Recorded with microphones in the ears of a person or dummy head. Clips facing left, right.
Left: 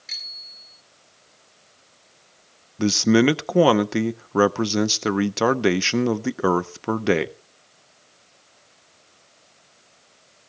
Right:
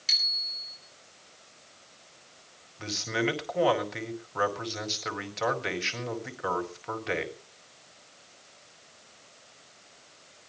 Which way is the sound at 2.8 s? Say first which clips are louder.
Left 14 dB; 60° left (ahead or behind).